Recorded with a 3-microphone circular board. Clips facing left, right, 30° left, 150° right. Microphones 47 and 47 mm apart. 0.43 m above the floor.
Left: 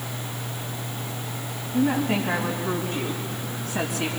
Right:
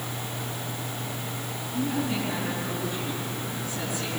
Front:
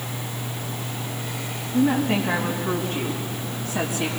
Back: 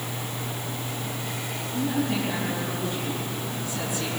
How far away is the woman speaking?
About 3.5 m.